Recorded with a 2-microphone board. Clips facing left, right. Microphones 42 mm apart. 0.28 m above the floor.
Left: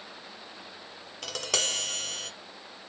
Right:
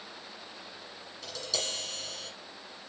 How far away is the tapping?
About 1.4 m.